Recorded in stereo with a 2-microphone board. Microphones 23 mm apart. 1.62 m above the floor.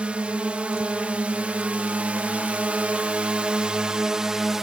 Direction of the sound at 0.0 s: 65° right (ahead or behind).